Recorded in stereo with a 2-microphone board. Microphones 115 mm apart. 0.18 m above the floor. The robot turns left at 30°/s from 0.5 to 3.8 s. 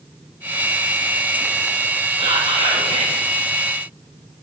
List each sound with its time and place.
2.2 s whispering: 75° right, 4 m; by 3.2 s 105° right, 4 m